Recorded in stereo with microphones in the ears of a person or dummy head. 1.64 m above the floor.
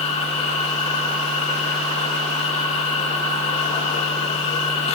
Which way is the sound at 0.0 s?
35° left (ahead or behind).